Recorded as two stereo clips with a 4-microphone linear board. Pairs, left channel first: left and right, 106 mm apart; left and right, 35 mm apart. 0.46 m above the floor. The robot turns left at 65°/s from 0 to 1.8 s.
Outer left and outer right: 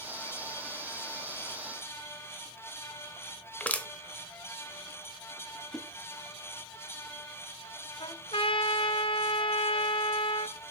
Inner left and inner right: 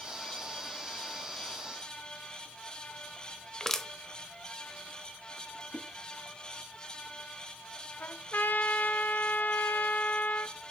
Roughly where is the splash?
Centre.